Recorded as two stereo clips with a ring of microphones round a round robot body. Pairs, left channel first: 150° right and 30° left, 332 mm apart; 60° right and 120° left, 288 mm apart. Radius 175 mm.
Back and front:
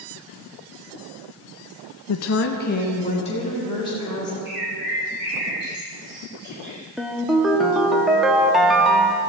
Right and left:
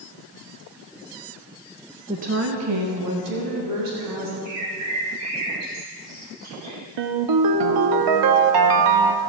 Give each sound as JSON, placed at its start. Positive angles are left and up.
{"t": 2.1, "sound": "a woman speaking", "azimuth_deg": -165, "distance_m": 0.5}
{"t": 4.5, "sound": "a bird", "azimuth_deg": 90, "distance_m": 3.5}
{"t": 7.0, "sound": "a ringtone", "azimuth_deg": 120, "distance_m": 0.7}